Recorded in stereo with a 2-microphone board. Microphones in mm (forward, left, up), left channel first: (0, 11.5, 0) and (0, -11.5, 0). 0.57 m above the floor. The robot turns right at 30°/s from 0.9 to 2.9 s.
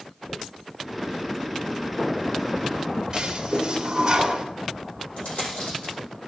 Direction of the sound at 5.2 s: 70° left (ahead or behind).